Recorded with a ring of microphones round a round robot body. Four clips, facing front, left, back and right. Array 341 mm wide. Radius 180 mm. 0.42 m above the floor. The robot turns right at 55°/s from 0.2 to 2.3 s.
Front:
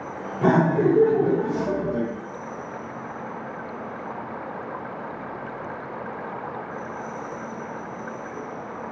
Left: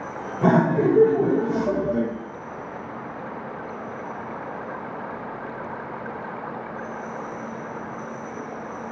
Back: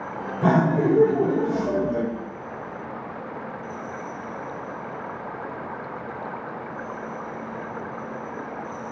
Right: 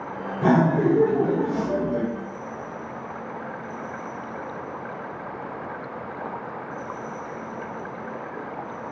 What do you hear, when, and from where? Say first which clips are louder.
0.4 s laughter: left 1 dB, front 1 dB; 40° left, 1.3 m; by 2.1 s 130° left, 1.3 m